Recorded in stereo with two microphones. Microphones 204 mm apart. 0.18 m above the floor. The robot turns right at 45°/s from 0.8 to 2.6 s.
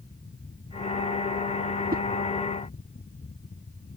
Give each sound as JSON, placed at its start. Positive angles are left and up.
{"t": 1.9, "sound": "a whoosh", "side_deg": -45}